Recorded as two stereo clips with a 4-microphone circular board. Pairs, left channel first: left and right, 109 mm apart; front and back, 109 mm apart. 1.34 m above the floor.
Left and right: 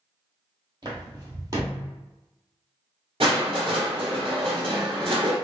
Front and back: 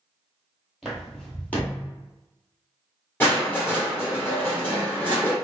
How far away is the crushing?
About 1.8 m.